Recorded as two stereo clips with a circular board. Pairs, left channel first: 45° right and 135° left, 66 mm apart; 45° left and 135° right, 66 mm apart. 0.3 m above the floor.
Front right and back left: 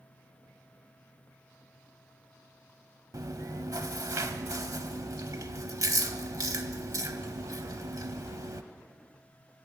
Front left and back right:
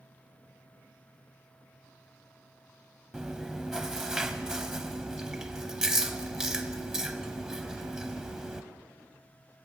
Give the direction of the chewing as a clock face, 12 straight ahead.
7 o'clock.